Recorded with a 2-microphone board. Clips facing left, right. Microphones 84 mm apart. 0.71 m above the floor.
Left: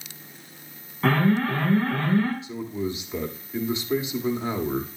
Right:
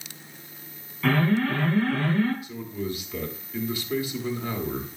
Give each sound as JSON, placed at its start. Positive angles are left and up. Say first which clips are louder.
{"t": 1.0, "sound": "an alarm", "louder": "left 1 dB", "side_deg": 40, "distance_m": 6.5}
{"t": 2.4, "sound": "a man speaking", "louder": "left 3 dB", "side_deg": 25, "distance_m": 1.6}